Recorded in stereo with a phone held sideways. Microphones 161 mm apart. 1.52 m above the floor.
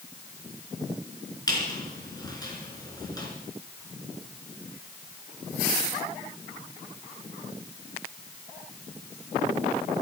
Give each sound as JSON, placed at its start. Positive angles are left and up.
{"t": 1.5, "sound": "a squeak", "side_deg": 25, "distance_m": 4.0}